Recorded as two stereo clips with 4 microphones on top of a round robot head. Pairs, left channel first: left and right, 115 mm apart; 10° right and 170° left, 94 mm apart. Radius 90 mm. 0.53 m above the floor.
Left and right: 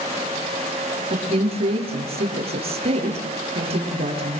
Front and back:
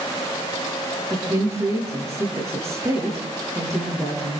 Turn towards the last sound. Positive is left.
turn(degrees=-125)